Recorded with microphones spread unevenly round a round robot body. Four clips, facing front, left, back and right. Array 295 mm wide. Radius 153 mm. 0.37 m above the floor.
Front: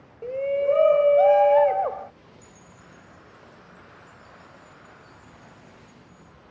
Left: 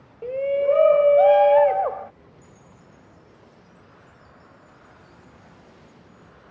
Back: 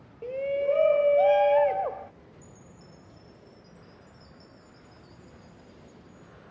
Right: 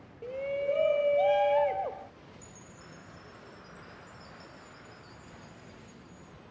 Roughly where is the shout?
Ahead left.